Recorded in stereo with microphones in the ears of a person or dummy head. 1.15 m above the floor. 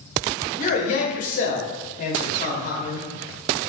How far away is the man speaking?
About 0.7 m.